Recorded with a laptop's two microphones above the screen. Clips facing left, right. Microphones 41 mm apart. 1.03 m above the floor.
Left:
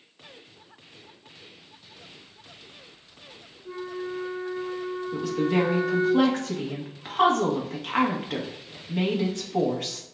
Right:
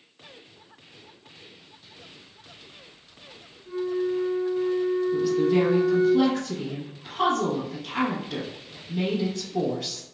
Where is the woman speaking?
55° left (ahead or behind), 1.2 m.